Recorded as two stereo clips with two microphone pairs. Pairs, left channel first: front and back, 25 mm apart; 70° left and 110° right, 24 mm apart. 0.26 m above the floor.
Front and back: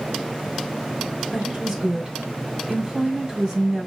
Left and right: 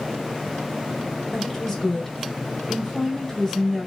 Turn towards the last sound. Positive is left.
turn(degrees=120)